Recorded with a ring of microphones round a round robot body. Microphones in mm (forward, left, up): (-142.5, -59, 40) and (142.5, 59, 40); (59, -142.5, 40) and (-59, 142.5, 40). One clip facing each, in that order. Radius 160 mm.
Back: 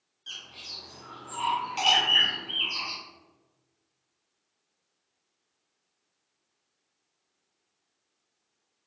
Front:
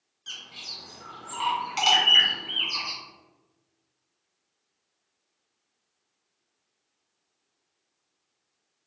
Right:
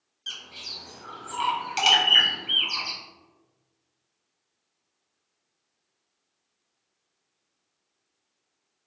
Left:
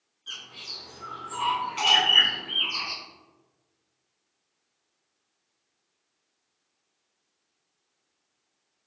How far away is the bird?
About 1.0 m.